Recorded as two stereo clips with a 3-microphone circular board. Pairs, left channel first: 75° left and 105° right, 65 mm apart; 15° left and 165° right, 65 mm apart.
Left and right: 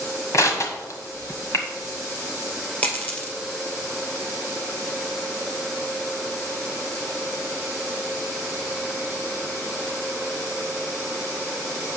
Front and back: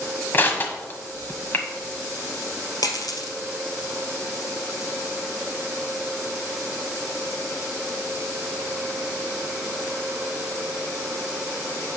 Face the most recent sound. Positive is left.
turn(degrees=10)